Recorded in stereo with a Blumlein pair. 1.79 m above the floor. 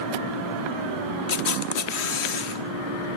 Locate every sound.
1.3 s a camera shutter: 50° left, 1.0 m